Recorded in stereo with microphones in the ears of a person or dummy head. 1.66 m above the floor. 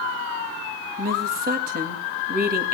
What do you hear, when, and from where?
1.0 s a woman speaking: 50° right (ahead or behind), 3 m